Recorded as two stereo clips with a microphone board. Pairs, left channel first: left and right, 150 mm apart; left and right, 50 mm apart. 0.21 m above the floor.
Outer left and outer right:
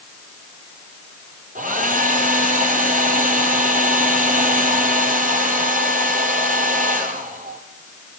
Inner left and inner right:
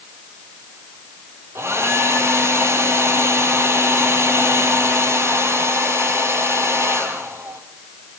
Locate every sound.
1.6 s a hair dryer: 60° right (ahead or behind), 2.5 m